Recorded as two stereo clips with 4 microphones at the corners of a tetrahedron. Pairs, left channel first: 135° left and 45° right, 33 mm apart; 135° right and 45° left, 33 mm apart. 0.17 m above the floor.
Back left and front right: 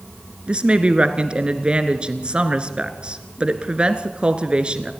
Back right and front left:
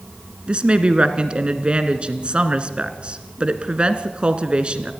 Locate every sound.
0.5 s a woman speaking: straight ahead, 1.7 m